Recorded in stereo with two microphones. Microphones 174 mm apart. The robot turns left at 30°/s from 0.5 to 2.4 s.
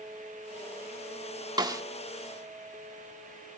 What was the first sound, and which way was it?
A snare drum, 25° right (ahead or behind).